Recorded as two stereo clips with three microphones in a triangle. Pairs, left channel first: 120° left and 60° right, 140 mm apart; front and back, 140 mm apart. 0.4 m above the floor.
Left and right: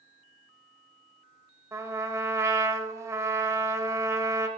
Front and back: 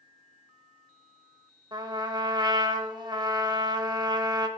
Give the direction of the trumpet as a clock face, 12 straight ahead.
4 o'clock.